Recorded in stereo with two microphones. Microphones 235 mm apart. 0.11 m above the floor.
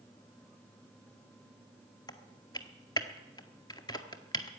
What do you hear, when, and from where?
2.1 s typing on a keyboard: 15° left (ahead or behind), 0.9 m